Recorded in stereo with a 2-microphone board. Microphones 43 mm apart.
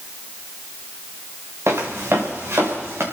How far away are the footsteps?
About 3.5 m.